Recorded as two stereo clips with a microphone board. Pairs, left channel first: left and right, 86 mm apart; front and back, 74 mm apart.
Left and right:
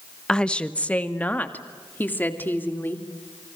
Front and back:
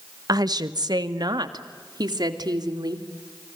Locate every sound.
0.3 s a woman speaking: 170° left, 1.1 m; by 3.0 s 155° left, 3.5 m